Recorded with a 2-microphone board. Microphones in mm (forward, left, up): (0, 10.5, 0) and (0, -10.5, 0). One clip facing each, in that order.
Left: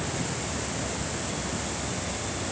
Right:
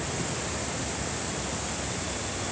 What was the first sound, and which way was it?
Only background noise.